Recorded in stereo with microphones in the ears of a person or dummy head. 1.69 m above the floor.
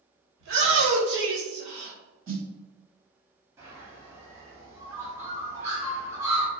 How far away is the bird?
About 0.7 m.